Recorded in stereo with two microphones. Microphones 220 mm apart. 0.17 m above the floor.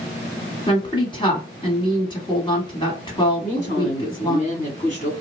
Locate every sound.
0.7 s a woman speaking: 20° left (ahead or behind), 1.4 m
3.4 s a woman speaking: 30° left (ahead or behind), 1.8 m